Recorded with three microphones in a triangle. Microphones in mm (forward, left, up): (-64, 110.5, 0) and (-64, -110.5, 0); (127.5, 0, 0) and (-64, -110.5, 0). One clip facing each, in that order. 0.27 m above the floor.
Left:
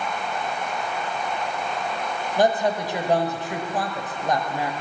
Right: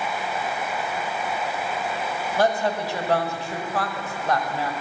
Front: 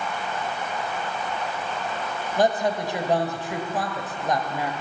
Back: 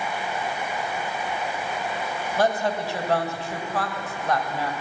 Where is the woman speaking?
60° left, 1.1 m.